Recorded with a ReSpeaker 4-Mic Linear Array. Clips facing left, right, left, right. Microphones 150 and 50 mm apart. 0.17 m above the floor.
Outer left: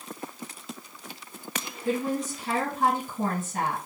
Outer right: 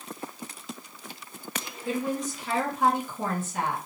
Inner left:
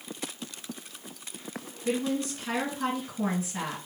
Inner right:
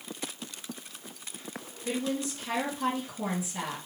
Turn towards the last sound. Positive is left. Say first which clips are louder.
# outer left 2 dB, inner left 3 dB
turn(degrees=35)  # may be behind; listen again after turning